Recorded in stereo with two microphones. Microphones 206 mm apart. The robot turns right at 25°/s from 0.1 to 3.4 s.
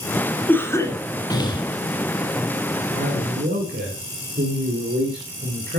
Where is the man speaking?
60° right (ahead or behind), 3 m; by 5.8 s 50° right (ahead or behind), 3 m.